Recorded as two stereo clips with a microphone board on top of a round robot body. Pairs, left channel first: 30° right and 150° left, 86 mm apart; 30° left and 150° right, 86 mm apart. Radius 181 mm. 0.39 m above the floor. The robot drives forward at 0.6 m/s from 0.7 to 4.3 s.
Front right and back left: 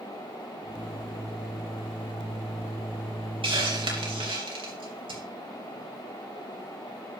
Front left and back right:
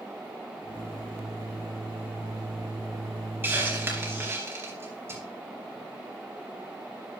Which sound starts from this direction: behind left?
A hiss, at 3.4 s.